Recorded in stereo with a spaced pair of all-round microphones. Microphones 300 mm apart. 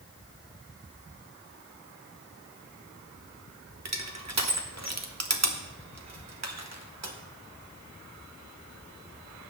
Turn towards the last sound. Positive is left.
turn(degrees=-60)  # may be behind; listen again after turning